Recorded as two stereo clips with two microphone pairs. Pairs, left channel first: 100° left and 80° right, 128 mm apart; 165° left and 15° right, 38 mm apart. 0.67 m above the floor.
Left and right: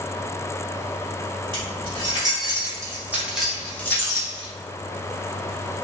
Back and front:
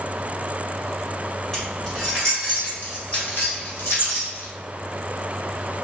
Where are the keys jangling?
125° right, 1.8 m; by 4.5 s 150° left, 0.9 m.